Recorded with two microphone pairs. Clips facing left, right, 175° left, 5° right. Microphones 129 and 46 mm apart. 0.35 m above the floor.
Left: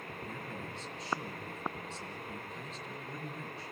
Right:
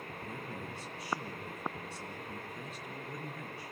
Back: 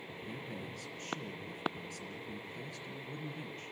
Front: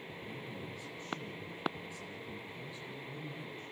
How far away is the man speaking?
About 5 m.